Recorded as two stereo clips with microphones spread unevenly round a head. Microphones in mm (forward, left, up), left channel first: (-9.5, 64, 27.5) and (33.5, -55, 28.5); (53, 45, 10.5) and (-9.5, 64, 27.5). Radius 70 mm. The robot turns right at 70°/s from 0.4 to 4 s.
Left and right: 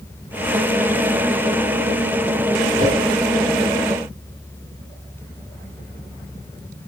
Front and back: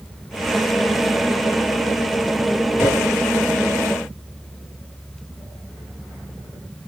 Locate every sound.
2.8 s a whoosh: 95° right, 3 m; by 3.0 s 80° right, 3 m